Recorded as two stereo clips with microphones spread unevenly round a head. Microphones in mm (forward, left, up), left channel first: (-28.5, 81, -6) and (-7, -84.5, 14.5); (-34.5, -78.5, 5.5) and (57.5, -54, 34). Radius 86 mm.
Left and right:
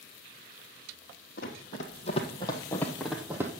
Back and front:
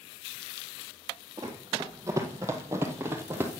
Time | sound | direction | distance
1.4 | running footsteps | 65° left | 1.7 m